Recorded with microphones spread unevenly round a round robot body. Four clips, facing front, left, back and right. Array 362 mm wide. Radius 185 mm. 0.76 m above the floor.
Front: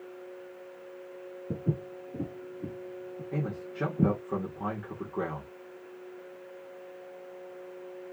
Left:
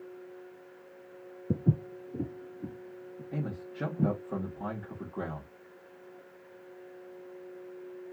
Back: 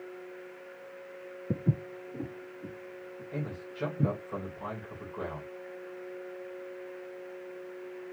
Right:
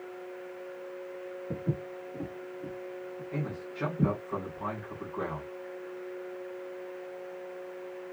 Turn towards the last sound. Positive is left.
turn(degrees=25)